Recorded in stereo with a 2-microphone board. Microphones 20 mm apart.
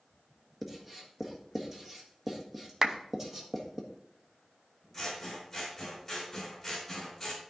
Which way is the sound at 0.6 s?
10° right (ahead or behind).